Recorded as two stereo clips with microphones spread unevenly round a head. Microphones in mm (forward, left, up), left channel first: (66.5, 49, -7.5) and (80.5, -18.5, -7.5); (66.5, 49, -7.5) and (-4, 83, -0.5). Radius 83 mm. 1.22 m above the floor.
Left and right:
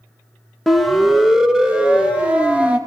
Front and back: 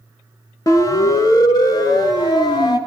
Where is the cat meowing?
No cat meowing in this recording.